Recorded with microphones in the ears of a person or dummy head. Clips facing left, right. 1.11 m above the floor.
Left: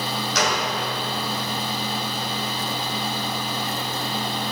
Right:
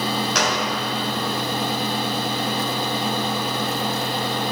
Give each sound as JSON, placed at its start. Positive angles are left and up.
{"t": 0.3, "sound": "a gunshot", "side_deg": -50, "distance_m": 2.5}